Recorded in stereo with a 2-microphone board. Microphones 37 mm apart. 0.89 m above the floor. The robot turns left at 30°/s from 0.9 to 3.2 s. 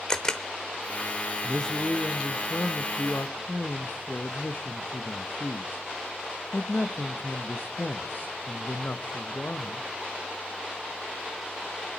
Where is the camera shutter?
20° left (ahead or behind), 0.7 m.